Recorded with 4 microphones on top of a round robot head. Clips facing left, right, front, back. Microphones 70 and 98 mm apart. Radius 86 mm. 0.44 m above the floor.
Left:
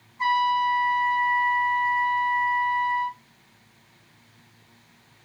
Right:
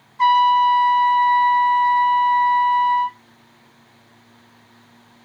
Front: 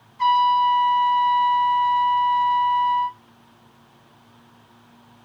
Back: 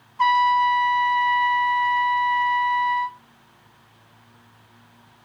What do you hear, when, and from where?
0.2 s a trumpet: 125° right, 0.7 m